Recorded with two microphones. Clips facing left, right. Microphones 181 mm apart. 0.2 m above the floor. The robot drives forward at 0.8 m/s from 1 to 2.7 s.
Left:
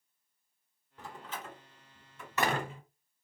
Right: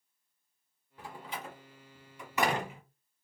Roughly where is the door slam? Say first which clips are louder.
Right 1 dB; centre.